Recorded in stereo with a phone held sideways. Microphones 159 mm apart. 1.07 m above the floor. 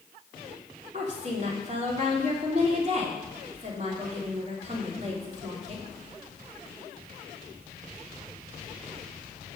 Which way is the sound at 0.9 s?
45° right (ahead or behind).